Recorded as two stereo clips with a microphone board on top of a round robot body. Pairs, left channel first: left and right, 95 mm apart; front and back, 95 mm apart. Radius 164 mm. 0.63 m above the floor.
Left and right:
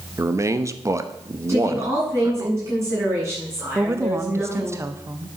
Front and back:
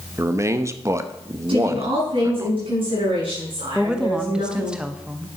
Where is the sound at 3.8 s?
110° right, 1.0 m.